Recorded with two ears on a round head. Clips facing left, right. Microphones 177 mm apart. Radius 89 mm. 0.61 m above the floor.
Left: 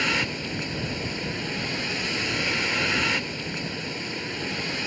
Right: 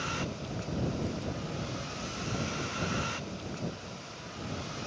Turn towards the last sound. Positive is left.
turn(degrees=90)